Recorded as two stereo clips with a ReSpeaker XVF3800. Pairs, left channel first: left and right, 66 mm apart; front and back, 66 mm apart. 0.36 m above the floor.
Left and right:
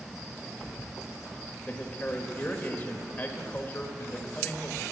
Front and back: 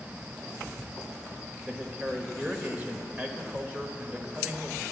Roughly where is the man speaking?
Behind left.